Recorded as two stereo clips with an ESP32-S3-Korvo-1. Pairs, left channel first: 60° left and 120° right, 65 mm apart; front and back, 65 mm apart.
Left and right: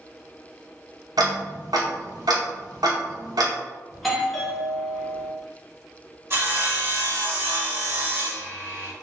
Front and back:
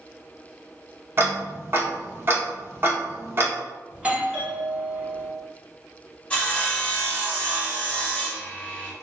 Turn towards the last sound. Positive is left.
turn(degrees=-70)